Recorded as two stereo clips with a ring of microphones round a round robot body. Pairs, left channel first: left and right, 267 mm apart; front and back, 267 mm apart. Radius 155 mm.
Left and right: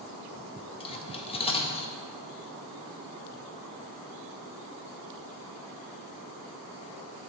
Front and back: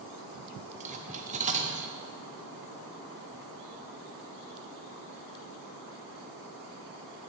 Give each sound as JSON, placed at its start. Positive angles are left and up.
{"t": 0.8, "sound": "cutlery clinking", "azimuth_deg": 140, "distance_m": 0.6}